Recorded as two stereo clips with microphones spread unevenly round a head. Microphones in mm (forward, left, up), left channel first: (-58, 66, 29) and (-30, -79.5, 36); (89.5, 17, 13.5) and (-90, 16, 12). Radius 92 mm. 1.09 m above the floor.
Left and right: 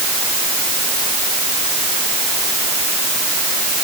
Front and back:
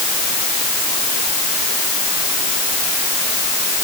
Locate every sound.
Only background noise.